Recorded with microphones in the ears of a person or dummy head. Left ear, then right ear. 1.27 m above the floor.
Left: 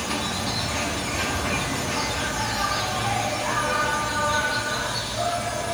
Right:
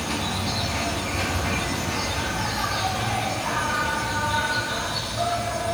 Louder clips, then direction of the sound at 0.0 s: Even; 5° left (ahead or behind).